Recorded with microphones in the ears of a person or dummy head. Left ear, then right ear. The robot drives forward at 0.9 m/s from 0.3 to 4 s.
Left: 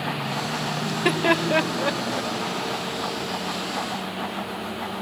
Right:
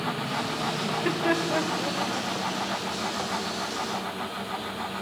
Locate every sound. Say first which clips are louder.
0.8 s laughter: left 6 dB; 75° left (ahead or behind), 1.4 m; by 2.3 s 55° left (ahead or behind), 1.7 m